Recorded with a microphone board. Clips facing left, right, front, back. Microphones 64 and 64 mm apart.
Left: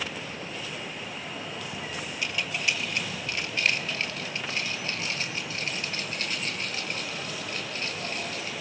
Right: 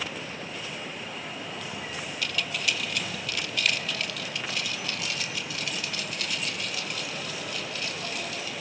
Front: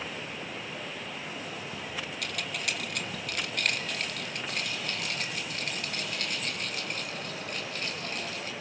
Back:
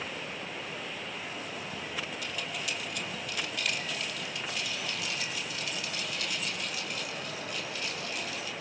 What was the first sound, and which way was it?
Keys jangling, 25° left.